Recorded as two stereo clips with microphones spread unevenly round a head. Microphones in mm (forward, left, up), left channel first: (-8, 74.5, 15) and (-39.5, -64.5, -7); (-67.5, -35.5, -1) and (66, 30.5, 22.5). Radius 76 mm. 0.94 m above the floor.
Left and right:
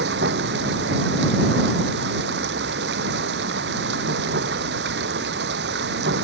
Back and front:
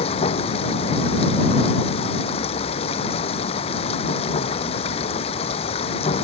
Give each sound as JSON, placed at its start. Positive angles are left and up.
{"t": 0.0, "sound": "running water", "azimuth_deg": -100}